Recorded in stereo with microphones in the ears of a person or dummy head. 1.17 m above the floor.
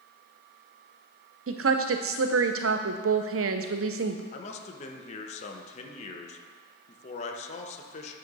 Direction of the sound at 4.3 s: 45° left (ahead or behind).